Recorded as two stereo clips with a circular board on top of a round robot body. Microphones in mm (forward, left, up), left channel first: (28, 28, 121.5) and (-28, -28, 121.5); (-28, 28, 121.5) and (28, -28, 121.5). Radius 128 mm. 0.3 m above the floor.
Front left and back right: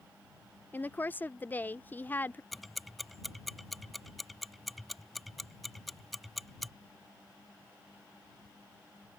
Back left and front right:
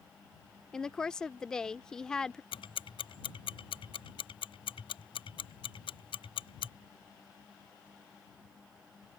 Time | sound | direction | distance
0.7 | a woman speaking | 65° left | ?
2.5 | ticking | 135° left | ?